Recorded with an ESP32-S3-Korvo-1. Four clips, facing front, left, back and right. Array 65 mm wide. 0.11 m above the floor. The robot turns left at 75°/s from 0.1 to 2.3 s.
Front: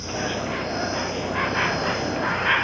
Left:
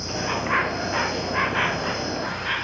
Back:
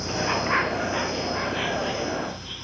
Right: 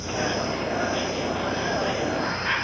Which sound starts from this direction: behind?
An insect, at 0.0 s.